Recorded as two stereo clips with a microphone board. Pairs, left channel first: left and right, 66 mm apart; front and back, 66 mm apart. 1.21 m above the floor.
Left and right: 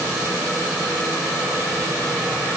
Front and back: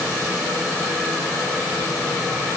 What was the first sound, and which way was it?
Only background noise.